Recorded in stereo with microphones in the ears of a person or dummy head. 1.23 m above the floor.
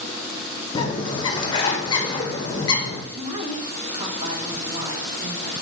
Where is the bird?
20° left (ahead or behind), 0.6 m.